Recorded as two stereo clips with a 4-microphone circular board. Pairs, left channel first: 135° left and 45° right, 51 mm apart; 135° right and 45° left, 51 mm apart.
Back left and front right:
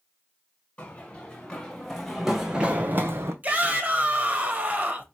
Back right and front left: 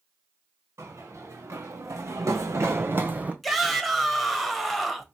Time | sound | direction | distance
0.8 | running footsteps | 70° left | 1.7 m
3.4 | a shout | 45° right | 1.0 m